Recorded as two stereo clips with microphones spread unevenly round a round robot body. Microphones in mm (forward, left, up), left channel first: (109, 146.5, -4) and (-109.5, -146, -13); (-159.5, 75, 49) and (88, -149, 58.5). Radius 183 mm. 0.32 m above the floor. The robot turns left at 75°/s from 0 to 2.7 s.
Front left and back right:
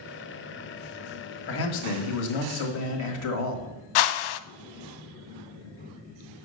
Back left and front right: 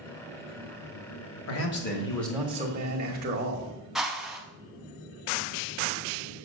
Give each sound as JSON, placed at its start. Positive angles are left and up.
{"t": 1.5, "sound": "a man speaking", "azimuth_deg": 110, "distance_m": 1.8}
{"t": 4.0, "sound": "a whoosh", "azimuth_deg": 45, "distance_m": 0.6}